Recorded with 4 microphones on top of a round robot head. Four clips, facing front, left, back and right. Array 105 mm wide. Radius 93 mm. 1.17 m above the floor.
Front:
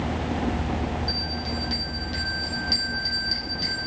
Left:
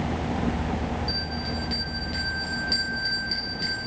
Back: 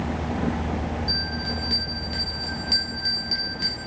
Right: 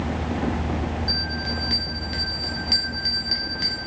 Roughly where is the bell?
Right.